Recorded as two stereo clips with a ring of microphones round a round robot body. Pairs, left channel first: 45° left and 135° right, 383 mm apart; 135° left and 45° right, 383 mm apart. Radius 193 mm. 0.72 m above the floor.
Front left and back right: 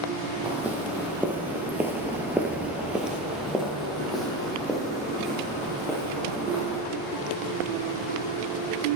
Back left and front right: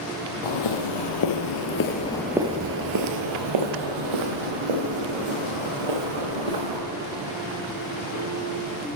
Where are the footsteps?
140° left, 1.5 m; by 6.8 s 45° right, 3.5 m.